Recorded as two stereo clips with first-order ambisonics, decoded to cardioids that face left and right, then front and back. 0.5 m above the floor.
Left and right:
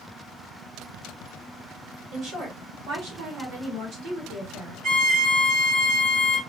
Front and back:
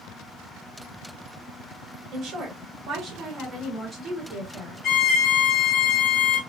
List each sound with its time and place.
2.1 s a woman speaking: 130° right, 2.5 m; by 4.8 s 55° right, 1.9 m
4.8 s a violin: 55° right, 1.8 m